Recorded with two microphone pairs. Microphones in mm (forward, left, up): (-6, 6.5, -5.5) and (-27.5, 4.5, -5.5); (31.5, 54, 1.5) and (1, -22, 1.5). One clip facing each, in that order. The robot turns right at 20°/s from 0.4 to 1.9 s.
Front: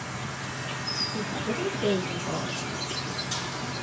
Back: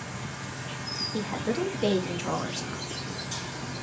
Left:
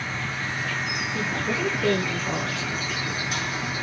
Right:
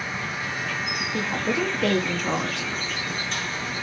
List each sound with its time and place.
0.0 s an insect: 40° right, 1.0 m; by 3.8 s 10° right, 1.0 m
1.1 s a woman speaking: 145° right, 0.9 m; by 2.8 s 130° right, 0.9 m